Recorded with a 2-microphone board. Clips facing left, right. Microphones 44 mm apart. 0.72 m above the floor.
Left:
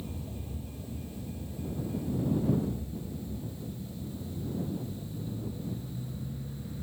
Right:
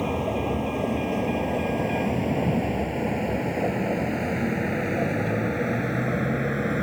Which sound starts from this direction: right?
A vehicle, at 0.0 s.